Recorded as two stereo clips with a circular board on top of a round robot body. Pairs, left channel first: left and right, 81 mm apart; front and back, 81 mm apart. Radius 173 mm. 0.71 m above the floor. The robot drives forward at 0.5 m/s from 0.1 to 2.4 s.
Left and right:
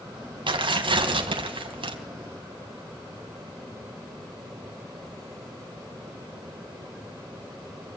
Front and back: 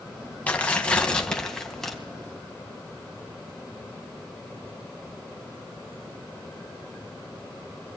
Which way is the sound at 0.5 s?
75° right.